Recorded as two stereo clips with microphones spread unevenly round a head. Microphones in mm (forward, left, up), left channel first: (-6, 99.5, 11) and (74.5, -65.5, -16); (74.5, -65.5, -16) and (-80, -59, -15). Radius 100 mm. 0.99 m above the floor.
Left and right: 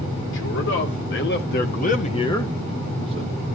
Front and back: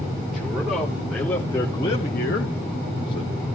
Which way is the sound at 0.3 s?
95° left.